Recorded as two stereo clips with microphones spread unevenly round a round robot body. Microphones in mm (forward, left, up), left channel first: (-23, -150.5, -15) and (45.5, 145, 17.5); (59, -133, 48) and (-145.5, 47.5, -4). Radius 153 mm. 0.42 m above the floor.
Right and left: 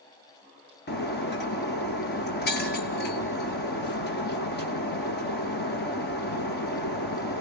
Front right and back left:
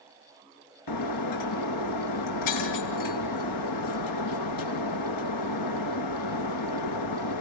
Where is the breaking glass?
45° right, 2.5 m.